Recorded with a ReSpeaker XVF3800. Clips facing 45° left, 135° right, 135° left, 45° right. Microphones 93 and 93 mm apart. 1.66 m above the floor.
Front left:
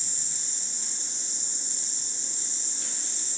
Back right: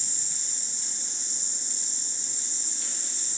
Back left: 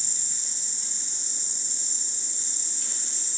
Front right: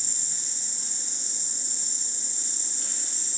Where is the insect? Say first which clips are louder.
Even, front right 1 dB; 5° right, 1.2 m.